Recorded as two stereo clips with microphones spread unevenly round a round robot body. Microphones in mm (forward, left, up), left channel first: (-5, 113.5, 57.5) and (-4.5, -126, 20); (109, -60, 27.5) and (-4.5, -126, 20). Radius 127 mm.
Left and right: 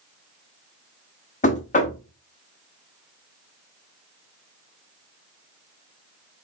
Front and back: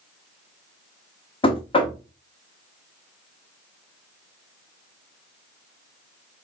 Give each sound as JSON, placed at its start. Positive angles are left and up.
{"t": 1.4, "sound": "knocking", "azimuth_deg": 35, "distance_m": 0.8}